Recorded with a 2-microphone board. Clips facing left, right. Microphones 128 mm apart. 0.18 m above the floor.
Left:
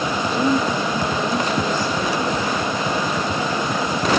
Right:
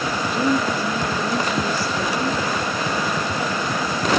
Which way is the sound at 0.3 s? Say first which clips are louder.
Left 1 dB; 5° right (ahead or behind).